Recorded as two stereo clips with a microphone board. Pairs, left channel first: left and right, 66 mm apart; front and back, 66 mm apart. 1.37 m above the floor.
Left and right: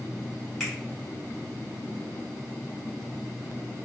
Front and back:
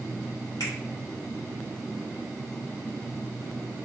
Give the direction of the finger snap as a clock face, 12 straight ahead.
12 o'clock.